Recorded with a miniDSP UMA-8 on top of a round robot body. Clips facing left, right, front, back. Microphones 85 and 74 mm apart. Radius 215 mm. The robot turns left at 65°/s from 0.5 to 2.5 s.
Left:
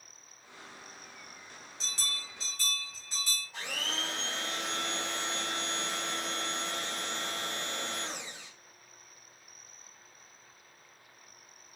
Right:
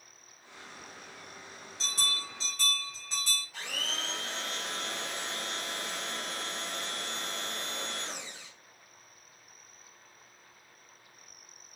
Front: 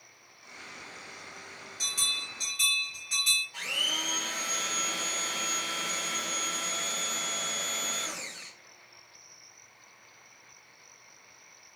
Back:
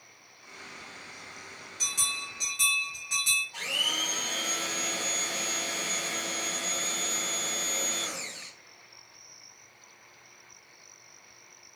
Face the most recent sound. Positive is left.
turn(degrees=160)